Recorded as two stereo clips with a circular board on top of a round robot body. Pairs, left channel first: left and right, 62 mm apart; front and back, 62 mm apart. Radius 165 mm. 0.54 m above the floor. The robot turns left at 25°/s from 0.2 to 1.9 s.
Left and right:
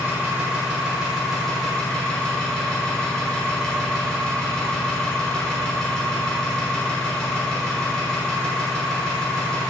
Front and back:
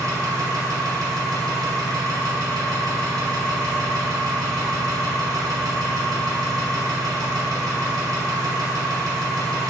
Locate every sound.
0.0 s an engine running: 150° right, 0.9 m; by 9.7 s 165° left, 0.9 m